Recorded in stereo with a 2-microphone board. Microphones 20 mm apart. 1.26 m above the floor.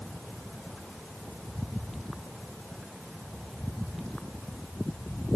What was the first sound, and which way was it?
Only background noise.